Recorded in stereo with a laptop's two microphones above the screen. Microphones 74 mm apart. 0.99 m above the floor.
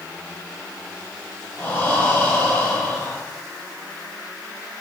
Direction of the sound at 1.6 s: 20° left (ahead or behind).